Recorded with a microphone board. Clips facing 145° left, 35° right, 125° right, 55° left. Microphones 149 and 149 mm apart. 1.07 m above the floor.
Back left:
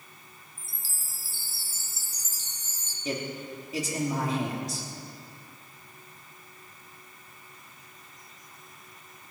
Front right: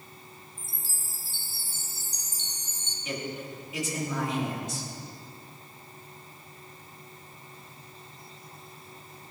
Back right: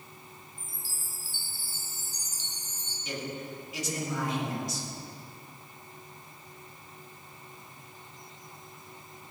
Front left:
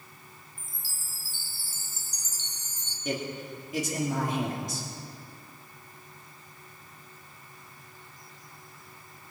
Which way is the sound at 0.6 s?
60° left.